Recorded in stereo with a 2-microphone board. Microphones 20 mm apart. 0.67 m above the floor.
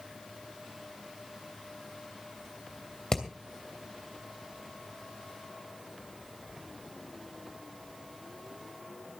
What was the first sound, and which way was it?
Hammering, 30° left (ahead or behind).